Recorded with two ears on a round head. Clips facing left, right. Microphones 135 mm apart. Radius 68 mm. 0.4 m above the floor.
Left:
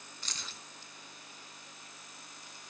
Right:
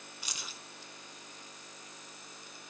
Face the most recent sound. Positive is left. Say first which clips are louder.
# even
turn(degrees=-10)  # may be behind; listen again after turning